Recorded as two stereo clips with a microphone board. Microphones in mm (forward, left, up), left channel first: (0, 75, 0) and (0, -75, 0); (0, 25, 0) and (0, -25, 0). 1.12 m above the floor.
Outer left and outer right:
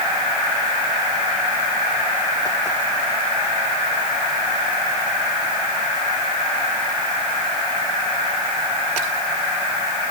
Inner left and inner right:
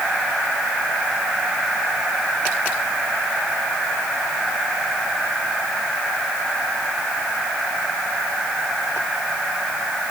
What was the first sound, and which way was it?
Only background noise.